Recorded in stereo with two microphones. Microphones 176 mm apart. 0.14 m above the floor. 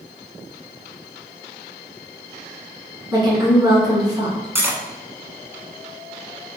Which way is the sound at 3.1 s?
25° right (ahead or behind).